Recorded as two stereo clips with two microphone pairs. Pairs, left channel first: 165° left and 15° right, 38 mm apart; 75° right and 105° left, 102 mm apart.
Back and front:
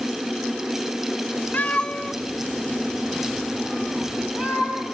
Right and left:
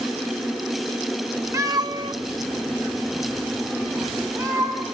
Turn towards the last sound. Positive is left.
turn(degrees=45)